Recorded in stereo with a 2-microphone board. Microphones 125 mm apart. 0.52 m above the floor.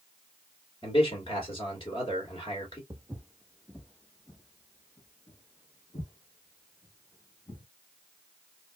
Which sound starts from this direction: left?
A man speaking, at 0.8 s.